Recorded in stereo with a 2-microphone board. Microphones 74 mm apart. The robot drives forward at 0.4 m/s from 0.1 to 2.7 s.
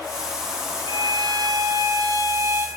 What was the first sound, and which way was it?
A violin, 75° right (ahead or behind).